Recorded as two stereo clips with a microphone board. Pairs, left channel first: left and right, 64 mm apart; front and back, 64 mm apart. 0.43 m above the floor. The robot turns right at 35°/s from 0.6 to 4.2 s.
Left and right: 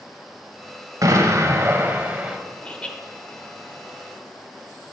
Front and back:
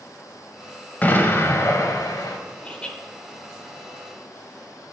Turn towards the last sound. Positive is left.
turn(degrees=95)